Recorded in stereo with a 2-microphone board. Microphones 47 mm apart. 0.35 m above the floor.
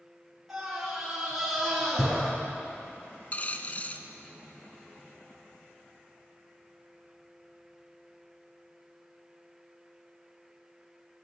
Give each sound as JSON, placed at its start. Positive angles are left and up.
{"t": 0.5, "sound": "a scream", "side_deg": -5, "distance_m": 4.5}
{"t": 3.3, "sound": "a dropped coin", "side_deg": 35, "distance_m": 0.9}